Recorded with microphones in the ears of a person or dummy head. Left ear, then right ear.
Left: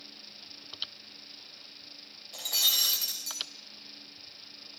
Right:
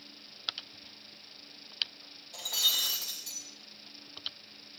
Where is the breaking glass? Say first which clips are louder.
Left 2 dB; 10° left (ahead or behind), 2.5 m.